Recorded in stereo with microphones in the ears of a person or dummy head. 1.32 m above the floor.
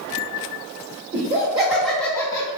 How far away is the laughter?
About 1.1 m.